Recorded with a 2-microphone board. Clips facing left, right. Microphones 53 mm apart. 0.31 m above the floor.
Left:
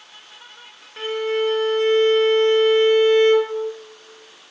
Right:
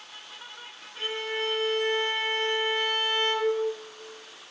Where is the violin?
60° left (ahead or behind), 0.6 m.